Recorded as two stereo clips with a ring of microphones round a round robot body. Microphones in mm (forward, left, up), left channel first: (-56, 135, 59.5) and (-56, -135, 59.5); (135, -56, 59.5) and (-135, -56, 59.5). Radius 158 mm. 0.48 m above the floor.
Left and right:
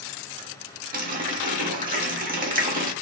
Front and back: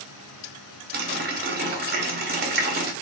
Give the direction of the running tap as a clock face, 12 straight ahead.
5 o'clock.